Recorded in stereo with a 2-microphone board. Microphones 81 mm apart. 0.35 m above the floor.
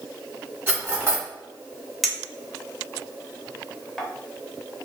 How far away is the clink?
About 0.5 m.